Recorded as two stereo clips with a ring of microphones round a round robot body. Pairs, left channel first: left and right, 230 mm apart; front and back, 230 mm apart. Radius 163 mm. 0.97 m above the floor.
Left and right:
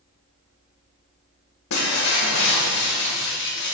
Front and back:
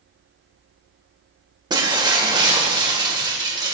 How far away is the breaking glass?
About 1.8 m.